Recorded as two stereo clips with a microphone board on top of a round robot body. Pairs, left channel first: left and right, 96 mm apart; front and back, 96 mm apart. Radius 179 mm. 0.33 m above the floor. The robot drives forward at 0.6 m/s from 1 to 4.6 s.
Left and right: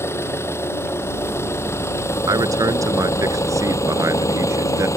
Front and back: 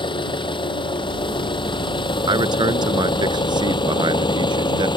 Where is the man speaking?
140° right; by 4.9 s 145° right.